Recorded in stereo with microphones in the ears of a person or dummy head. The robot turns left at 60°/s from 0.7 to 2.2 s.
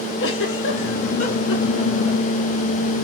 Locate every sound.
0.2 s a giggle: 75° left (ahead or behind), 4.5 m; by 2.2 s 10° right (ahead or behind), 4.5 m